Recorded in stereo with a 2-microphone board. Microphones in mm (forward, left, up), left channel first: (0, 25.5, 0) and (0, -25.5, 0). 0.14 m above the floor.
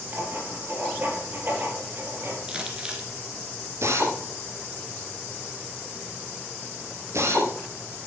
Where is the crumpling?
20° right (ahead or behind), 2.5 m.